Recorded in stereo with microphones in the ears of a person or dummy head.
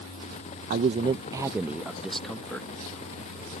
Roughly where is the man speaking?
Right.